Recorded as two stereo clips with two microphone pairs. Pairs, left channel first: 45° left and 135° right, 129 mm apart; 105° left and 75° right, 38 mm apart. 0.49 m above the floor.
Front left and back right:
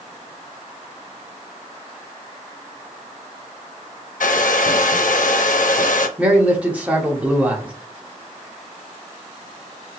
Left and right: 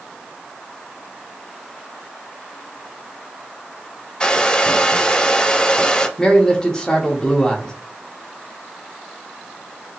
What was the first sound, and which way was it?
A hair dryer, 40° left.